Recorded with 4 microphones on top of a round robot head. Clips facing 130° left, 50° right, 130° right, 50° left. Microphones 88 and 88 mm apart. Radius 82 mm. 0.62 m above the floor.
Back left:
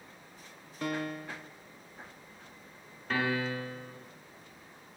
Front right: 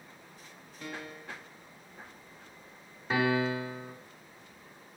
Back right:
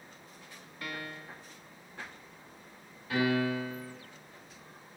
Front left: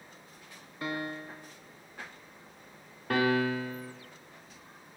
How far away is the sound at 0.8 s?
About 0.5 m.